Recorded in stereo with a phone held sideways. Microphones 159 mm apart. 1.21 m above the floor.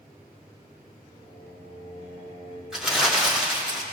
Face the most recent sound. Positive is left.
turn(degrees=-5)  # may be behind; listen again after turning